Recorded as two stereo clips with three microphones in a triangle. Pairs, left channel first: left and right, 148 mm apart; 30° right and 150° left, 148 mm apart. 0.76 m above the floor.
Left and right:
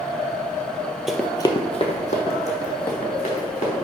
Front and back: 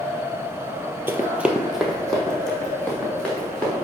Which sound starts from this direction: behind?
Running footsteps, at 1.1 s.